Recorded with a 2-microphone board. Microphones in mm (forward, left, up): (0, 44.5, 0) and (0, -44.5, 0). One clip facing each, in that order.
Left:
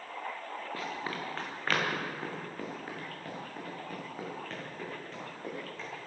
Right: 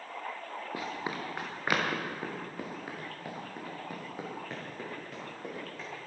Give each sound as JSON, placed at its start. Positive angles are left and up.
{"t": 0.7, "sound": "running footsteps", "side_deg": -15, "distance_m": 2.5}